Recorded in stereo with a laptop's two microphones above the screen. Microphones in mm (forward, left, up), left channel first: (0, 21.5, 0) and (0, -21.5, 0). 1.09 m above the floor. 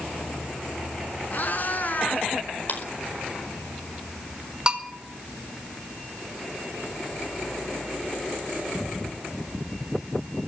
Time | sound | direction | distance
1.3 | a cat meowing | 45° left (ahead or behind) | 5 m
2.7 | a clap | 50° left (ahead or behind) | 4.5 m
4.7 | a bell | 20° right (ahead or behind) | 2.5 m